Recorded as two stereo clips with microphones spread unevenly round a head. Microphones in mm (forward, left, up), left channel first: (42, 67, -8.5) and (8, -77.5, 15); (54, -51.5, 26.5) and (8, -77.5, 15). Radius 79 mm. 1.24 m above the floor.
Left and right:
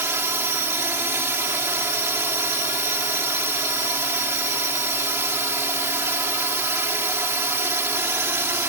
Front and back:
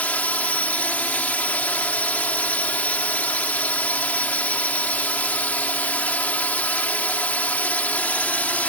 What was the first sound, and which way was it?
A drone, 30° right.